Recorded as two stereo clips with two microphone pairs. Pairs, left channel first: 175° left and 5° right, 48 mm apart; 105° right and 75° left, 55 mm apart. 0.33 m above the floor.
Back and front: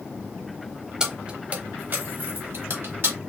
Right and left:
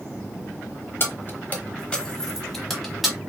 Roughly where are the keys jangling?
Right.